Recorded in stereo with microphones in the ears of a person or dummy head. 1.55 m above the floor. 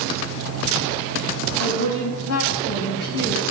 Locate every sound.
1.6 s a woman speaking: 70° left (ahead or behind), 4 m; by 3.4 s 65° left (ahead or behind), 3 m